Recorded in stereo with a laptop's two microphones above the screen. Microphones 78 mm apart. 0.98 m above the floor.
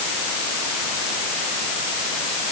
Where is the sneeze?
I don't hear a sneeze.